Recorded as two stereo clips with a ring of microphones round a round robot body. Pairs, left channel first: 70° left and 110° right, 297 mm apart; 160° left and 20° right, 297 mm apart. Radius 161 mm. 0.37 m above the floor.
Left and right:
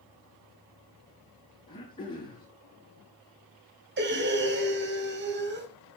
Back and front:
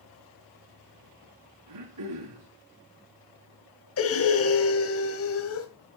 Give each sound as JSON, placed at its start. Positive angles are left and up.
{"t": 1.7, "sound": "throat clearing", "azimuth_deg": -5, "distance_m": 7.0}
{"t": 4.0, "sound": "breathing", "azimuth_deg": -165, "distance_m": 2.5}